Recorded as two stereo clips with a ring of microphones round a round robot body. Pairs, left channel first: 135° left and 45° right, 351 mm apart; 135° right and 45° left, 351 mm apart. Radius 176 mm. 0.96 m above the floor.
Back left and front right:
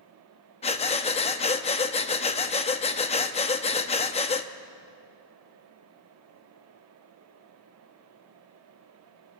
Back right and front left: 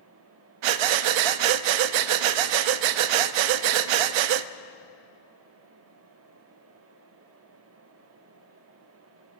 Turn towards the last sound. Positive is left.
turn(degrees=60)